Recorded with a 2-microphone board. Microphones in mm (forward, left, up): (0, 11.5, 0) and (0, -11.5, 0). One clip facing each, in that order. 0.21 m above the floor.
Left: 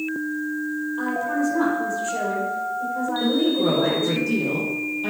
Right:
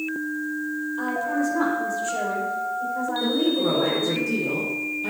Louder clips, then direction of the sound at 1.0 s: Left 1 dB; centre (ahead or behind).